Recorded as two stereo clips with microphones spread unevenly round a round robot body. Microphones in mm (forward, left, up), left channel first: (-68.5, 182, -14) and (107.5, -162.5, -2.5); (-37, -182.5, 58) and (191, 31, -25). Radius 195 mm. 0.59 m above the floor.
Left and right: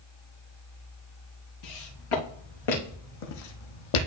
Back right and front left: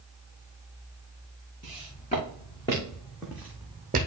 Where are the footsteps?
155° left, 4 m; by 4.1 s 110° left, 1.5 m.